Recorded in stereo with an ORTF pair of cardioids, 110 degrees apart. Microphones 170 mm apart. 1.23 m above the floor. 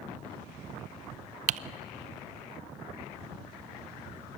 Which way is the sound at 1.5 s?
50° right.